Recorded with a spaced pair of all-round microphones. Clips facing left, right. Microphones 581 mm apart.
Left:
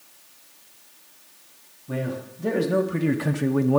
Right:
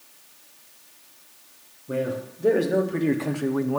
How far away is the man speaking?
About 1.6 m.